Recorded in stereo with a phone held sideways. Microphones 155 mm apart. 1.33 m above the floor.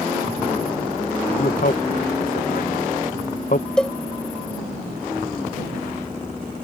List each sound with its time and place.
1.4 s a man speaking: 60° left (ahead or behind)
3.8 s a cowbell: 5° left (ahead or behind)